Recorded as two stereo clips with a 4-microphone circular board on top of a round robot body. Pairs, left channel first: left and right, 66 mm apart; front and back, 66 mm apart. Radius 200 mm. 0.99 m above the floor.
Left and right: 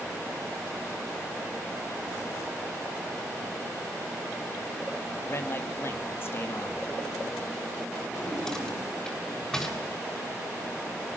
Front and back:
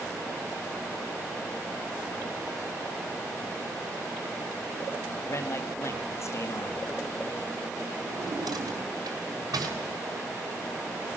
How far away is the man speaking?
About 3 m.